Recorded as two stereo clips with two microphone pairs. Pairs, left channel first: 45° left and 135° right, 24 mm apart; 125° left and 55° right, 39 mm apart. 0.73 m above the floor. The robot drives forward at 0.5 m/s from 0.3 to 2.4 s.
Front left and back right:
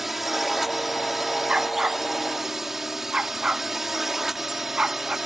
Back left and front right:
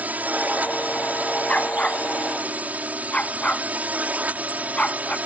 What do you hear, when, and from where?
0.0 s a drone: 50° right; by 5.3 s 60° right
1.5 s a dog barking: 175° right; by 5.2 s straight behind